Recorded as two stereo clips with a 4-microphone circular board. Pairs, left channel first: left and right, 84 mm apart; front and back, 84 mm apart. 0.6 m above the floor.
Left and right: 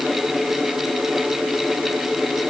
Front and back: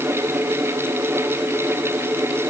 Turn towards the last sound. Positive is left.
No sound to turn to.